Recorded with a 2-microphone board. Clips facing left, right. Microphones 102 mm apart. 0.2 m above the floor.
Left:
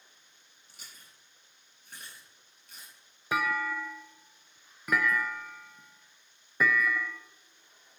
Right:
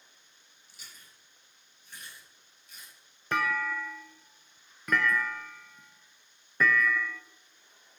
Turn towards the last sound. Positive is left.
turn(degrees=10)  # may be behind; listen again after turning